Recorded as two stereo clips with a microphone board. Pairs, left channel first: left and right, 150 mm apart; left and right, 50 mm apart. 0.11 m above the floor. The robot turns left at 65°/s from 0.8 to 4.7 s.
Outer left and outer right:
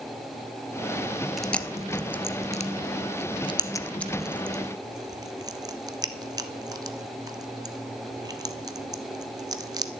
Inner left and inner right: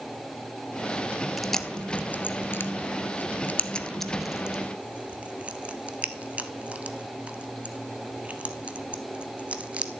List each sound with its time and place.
1.4 s chewing: centre (ahead or behind), 0.7 m; by 9.9 s 25° right (ahead or behind), 0.7 m